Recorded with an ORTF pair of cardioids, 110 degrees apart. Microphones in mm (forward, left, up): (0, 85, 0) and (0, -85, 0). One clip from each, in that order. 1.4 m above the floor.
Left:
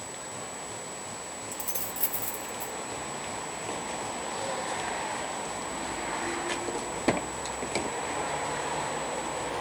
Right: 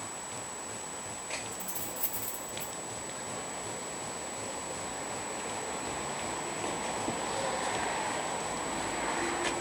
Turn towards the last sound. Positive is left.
turn(degrees=20)